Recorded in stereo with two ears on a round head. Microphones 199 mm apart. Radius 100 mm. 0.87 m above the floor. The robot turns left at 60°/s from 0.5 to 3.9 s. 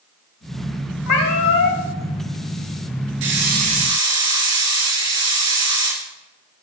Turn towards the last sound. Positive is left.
turn(degrees=-160)